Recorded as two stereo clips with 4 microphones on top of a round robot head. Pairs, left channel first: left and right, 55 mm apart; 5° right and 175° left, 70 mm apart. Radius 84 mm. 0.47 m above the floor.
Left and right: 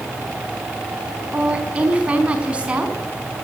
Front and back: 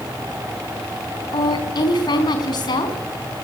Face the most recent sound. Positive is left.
turn(degrees=-20)